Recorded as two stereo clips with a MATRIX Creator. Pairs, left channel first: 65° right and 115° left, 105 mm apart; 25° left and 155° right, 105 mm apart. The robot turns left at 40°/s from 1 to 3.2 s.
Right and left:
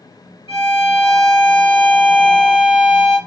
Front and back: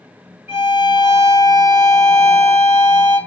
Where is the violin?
95° right, 2 m; by 3.2 s straight behind, 2 m.